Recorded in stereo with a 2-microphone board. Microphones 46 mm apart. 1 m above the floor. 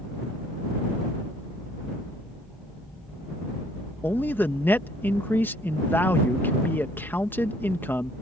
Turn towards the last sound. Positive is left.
turn(degrees=45)  # may be behind; listen again after turning